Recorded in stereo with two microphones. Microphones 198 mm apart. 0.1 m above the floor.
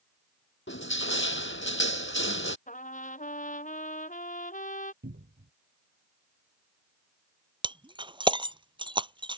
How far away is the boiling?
I don't hear boiling.